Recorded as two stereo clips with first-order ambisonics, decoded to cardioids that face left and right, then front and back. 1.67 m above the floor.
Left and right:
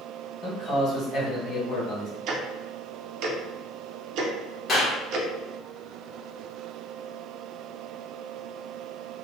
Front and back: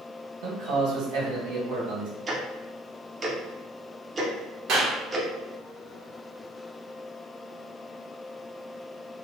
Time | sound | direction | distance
0.4 | a man speaking | 155° left | 1.8 m
2.3 | ticking | 110° right | 0.7 m
4.7 | a clap | 150° left | 1.2 m